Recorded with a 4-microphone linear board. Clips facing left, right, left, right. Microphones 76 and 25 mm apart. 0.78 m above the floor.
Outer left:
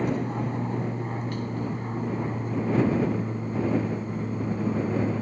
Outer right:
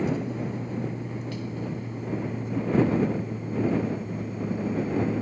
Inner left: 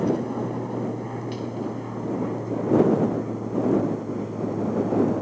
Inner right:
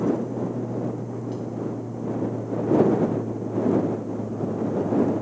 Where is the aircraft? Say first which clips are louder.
Outer left 1 dB, even; 50° left (ahead or behind); by 5.2 s 45° left (ahead or behind).